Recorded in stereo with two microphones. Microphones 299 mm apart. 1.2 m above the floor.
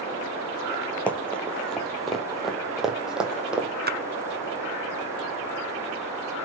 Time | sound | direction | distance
1.1 | running footsteps | 5° left (ahead or behind) | 2 m
3.9 | a splash | 30° right (ahead or behind) | 0.6 m